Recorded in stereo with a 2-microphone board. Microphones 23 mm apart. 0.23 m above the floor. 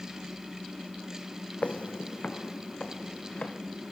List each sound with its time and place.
1.6 s footsteps: 60° left (ahead or behind), 0.6 m; by 3.5 s 45° left (ahead or behind), 3 m